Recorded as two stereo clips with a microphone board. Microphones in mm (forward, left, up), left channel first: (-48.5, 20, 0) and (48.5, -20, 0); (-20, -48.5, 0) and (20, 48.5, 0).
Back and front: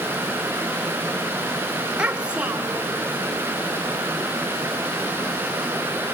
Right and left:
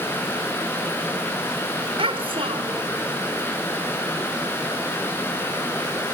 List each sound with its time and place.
2.0 s a child speaking: 60° left, 1.6 m